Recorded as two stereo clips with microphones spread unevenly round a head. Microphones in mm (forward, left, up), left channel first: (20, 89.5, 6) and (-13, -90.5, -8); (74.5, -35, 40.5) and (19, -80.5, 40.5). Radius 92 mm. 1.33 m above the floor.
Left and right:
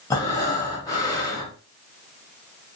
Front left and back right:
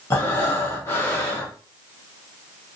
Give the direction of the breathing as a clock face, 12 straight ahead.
11 o'clock.